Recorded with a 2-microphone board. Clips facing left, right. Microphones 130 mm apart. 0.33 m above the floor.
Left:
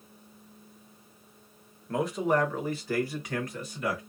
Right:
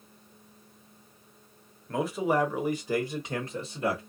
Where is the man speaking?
Centre (ahead or behind), 0.9 m; by 4.0 s 30° right (ahead or behind), 1.2 m.